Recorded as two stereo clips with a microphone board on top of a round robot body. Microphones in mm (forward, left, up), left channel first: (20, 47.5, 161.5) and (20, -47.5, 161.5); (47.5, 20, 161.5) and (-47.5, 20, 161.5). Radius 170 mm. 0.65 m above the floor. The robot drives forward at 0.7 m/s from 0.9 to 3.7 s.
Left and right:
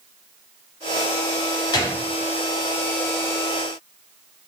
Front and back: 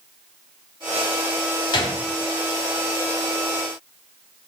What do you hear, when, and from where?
1.7 s a gunshot: 35° left, 0.8 m; by 2.0 s 45° left, 0.7 m